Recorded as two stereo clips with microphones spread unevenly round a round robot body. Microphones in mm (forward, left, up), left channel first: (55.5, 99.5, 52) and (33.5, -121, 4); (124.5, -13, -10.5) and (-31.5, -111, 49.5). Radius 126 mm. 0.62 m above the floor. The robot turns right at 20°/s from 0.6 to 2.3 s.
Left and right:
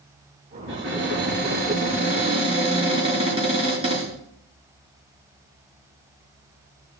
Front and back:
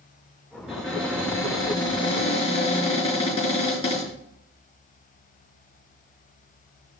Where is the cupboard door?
60° right, 6 m; by 4.1 s 30° right, 6 m.